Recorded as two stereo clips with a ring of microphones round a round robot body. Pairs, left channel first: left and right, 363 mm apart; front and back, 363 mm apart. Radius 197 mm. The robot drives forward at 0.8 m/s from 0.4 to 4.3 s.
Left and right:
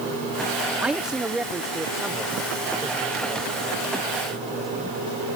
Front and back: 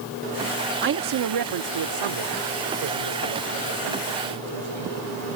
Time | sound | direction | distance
0.8 | a man speaking | 175° right | ?